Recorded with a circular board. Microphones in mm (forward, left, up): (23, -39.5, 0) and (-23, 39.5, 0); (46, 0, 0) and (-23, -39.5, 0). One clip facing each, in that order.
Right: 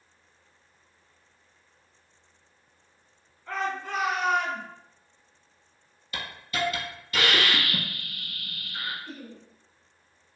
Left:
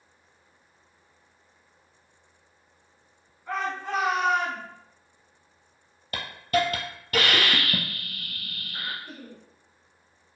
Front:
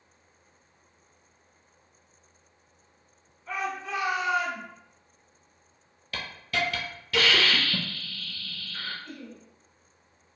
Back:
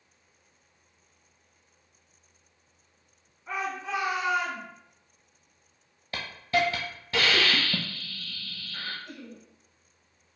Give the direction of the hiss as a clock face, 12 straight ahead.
7 o'clock.